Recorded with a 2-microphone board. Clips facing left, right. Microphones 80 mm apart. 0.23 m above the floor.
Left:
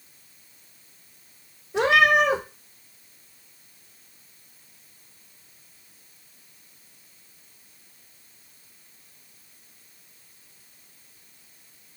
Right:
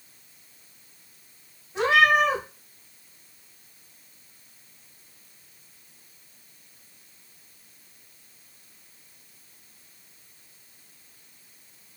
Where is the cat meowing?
75° left (ahead or behind), 1.1 m.